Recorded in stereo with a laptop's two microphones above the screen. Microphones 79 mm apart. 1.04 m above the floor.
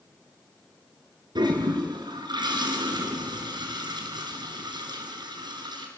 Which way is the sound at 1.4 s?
80° right.